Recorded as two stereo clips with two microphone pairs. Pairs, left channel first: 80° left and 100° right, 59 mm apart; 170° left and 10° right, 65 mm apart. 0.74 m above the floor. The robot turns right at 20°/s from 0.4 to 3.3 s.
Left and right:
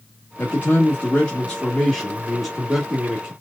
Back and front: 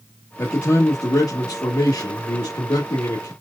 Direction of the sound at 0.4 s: 130° left.